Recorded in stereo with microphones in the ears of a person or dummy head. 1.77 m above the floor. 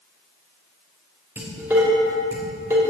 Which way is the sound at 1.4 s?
20° right (ahead or behind).